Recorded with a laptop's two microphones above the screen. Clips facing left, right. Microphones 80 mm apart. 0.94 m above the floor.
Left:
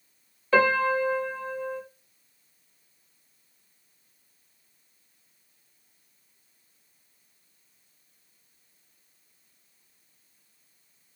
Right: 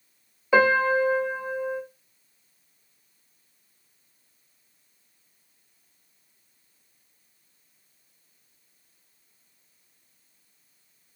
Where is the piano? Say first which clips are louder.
Right 2 dB; 15° right (ahead or behind), 1.0 m.